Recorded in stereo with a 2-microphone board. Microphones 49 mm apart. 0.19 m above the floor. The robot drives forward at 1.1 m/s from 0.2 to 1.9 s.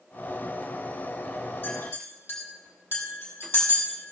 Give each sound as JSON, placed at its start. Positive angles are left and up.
{"t": 1.6, "sound": "a clink", "side_deg": 40, "distance_m": 5.0}